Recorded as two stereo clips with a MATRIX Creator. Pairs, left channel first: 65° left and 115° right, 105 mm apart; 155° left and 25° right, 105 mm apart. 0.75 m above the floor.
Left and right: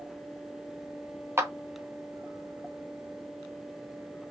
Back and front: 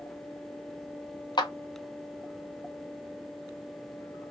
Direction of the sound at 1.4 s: 175° right.